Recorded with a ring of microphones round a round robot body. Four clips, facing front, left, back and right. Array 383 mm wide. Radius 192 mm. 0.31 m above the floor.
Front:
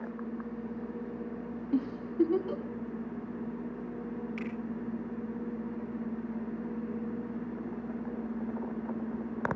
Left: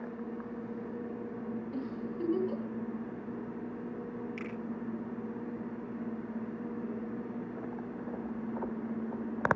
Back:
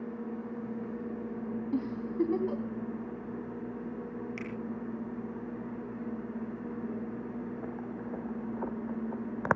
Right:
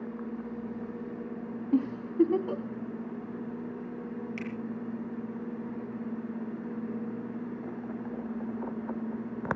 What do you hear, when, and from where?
1.7 s a giggle: 105° right, 3 m
4.4 s a finger snap: 155° right, 5.5 m